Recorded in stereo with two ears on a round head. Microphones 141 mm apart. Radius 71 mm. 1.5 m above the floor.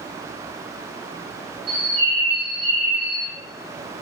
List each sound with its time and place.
1.7 s a bird: 30° right (ahead or behind), 1.0 m